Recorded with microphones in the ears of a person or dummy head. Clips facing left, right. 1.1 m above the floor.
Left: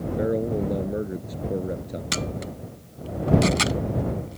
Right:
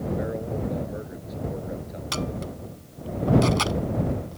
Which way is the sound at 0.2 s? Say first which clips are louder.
Left 5 dB; 50° left (ahead or behind).